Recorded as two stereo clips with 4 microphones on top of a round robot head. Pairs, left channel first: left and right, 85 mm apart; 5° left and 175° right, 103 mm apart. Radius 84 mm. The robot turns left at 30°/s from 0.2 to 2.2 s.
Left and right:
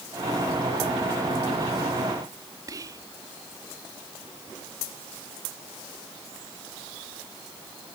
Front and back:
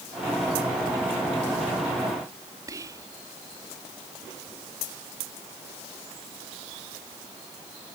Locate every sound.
2.7 s whispering: 125° right